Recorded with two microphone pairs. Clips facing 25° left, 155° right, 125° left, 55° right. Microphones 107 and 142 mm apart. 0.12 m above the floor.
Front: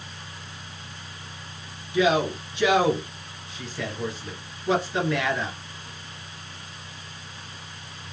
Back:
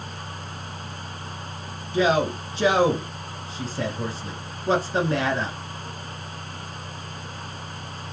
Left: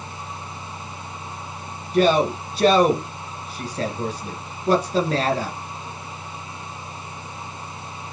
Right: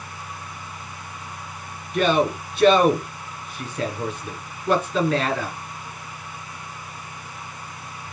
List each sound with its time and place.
1.9 s a man speaking: 165° left, 2.0 m